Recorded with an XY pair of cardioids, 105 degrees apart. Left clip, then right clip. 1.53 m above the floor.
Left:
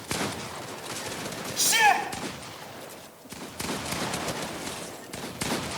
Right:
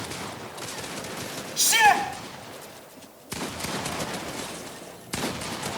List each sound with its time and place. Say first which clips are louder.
1.6 s a shout: right 2 dB; 15° right, 8 m